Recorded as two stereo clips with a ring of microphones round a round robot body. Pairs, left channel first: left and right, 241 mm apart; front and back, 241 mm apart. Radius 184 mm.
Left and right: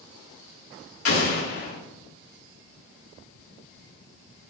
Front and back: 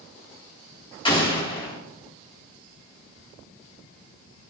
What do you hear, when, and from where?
1.1 s an explosion: 70° left, 3 m